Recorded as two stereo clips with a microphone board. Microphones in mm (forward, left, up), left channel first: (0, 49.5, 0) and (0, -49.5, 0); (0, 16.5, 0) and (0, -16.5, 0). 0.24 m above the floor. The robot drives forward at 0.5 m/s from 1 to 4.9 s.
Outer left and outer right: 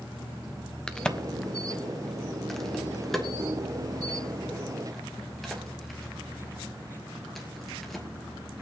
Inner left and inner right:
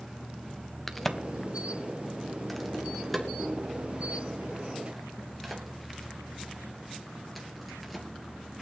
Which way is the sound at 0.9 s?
5° left (ahead or behind).